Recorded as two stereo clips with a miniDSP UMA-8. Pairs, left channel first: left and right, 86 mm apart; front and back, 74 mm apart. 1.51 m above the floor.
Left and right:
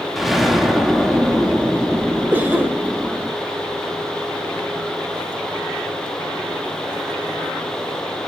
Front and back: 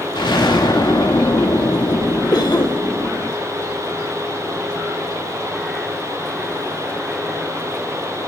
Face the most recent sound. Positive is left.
turn(degrees=-20)